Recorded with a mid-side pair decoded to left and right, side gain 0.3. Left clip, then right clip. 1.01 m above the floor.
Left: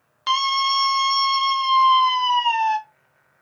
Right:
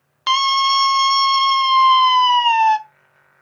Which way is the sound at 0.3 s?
50° right.